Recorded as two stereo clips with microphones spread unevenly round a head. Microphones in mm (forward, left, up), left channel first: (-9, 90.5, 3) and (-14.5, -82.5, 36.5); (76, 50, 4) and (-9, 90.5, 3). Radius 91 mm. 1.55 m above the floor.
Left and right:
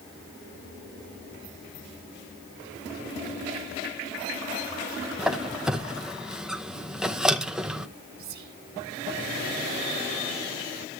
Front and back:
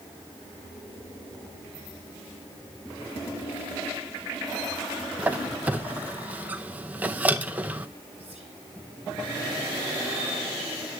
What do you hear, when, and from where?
5.2 s a squeak: 150° right, 0.7 m
8.2 s whispering: 125° right, 1.4 m